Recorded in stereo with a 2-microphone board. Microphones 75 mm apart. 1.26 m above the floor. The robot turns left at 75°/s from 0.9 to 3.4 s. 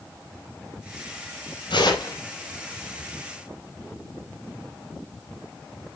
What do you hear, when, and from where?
1.7 s tearing paper: 85° left, 5 m; by 2.1 s 50° left, 5 m